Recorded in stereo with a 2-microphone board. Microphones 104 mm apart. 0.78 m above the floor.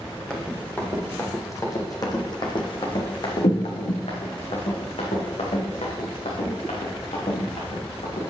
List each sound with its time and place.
0.3 s running footsteps: 10° left (ahead or behind), 1.7 m; by 8.2 s 80° left, 4 m